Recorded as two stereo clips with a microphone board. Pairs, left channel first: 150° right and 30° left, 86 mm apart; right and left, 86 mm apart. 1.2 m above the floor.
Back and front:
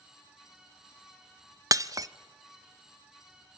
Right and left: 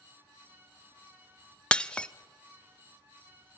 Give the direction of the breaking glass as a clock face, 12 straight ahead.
12 o'clock.